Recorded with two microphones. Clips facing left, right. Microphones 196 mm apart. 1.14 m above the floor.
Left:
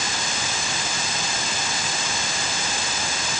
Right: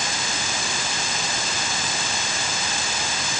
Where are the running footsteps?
No running footsteps in this recording.